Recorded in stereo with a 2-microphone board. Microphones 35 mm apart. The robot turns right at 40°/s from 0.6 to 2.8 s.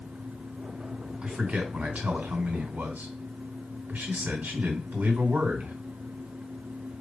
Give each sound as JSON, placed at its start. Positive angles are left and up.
{"t": 1.2, "sound": "a man speaking", "azimuth_deg": -145, "distance_m": 2.0}